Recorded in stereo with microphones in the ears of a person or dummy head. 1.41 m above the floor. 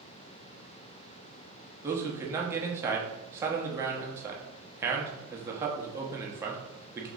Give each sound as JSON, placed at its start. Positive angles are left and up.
{"t": 1.8, "sound": "a man speaking", "side_deg": -10, "distance_m": 0.7}